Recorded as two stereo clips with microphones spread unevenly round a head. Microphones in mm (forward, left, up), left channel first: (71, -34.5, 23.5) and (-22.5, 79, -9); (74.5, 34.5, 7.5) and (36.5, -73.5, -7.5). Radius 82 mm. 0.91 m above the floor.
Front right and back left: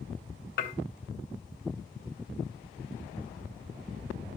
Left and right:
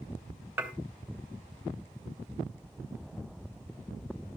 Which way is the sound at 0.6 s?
30° right.